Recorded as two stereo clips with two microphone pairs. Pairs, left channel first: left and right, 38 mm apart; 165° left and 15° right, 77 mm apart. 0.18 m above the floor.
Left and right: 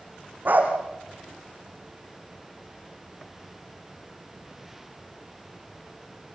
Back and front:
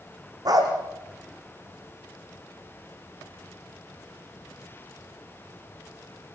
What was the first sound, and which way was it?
A dog barking, 50° right.